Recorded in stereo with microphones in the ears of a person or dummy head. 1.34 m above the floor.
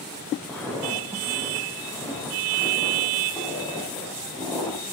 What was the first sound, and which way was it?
Footsteps, 5° left (ahead or behind).